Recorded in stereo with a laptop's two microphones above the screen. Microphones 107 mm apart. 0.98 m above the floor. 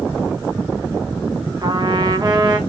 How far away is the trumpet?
About 0.8 m.